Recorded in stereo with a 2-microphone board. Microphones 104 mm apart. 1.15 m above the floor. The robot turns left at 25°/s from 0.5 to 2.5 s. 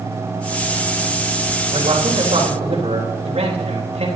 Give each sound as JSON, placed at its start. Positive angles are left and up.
{"t": 1.7, "sound": "a man speaking", "side_deg": -50, "distance_m": 3.5}